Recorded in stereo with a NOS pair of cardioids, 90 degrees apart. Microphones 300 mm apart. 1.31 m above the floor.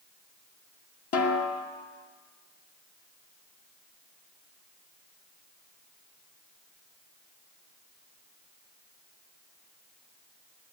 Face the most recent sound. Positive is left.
turn(degrees=55)